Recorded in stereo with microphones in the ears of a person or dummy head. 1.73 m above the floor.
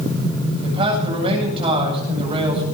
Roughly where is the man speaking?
Right.